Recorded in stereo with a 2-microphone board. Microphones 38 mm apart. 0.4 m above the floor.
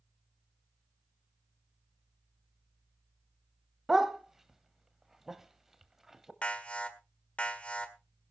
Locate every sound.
3.9 s a dog barking: 10° right (ahead or behind), 0.8 m
6.4 s an alarm: 30° left (ahead or behind), 1.4 m